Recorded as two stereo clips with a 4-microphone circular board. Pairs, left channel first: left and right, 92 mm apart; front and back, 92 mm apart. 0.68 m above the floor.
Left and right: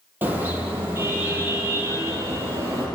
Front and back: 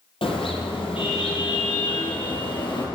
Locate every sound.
0.2 s a car horn: 20° right, 7.5 m; by 2.9 s 35° right, 7.5 m